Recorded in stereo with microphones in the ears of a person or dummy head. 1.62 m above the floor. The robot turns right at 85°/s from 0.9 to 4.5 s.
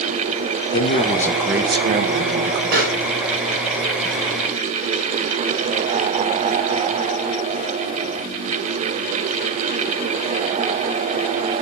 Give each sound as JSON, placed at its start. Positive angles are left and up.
{"t": 0.7, "sound": "a man speaking", "azimuth_deg": 145, "distance_m": 0.9}
{"t": 2.7, "sound": "a pop", "side_deg": -60, "distance_m": 5.5}